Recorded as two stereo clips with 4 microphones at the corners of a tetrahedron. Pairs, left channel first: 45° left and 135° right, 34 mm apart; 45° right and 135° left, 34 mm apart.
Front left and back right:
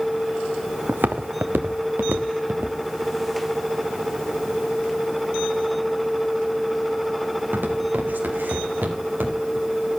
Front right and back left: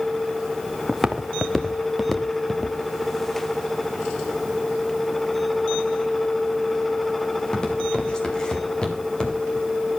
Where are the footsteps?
140° right, 1.3 m; by 9.7 s 110° right, 5.5 m.